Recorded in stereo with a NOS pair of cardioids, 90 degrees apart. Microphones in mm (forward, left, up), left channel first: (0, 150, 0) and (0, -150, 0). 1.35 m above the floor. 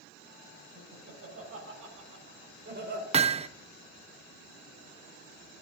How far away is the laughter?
About 6.5 m.